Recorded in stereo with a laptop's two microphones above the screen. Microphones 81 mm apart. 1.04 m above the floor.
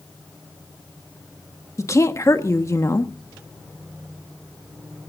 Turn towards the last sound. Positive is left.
turn(degrees=40)  # may be behind; listen again after turning